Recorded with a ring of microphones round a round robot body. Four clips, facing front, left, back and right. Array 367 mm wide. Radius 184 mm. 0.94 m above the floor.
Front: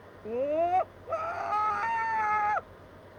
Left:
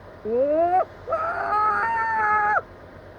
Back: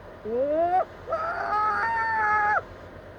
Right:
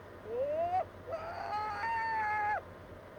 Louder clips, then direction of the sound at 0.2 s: Left 14 dB, back 4 dB; 105° left.